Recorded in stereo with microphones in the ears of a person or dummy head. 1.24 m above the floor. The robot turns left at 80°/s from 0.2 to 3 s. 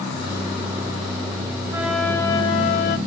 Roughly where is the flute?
Behind.